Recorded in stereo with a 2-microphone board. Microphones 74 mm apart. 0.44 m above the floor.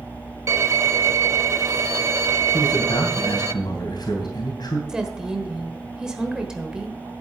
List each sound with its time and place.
0.5 s a violin: 45° right (ahead or behind), 0.6 m
2.5 s a man speaking: 70° left (ahead or behind), 3 m
4.9 s a woman speaking: 10° right (ahead or behind), 1.3 m